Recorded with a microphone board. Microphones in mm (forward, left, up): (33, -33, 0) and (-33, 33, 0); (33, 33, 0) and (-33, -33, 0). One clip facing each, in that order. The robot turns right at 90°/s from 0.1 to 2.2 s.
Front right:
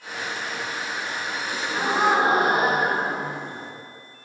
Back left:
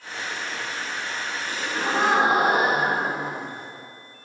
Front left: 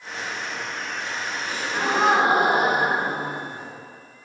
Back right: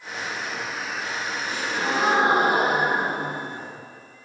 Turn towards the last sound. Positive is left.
turn(degrees=55)